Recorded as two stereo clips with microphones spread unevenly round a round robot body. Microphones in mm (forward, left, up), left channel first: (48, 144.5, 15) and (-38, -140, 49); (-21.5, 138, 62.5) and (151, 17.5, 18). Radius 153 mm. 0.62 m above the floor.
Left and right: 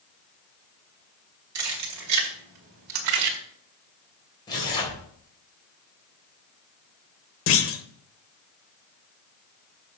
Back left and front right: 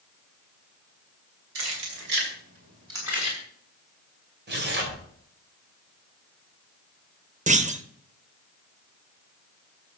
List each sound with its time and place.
1.6 s keys jangling: 65° right, 3 m; by 3.4 s 125° right, 2 m
4.5 s tearing paper: straight ahead, 3.5 m
7.5 s a clunk: 25° left, 1.1 m